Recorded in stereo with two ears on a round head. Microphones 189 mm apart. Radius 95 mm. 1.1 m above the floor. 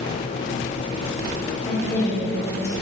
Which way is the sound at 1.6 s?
10° left (ahead or behind).